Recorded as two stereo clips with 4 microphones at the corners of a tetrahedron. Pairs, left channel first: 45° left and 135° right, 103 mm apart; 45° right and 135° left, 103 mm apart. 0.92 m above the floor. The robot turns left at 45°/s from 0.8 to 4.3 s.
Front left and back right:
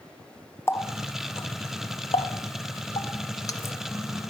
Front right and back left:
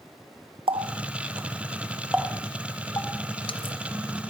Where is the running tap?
110° left, 0.5 m; by 3.8 s 25° right, 0.5 m.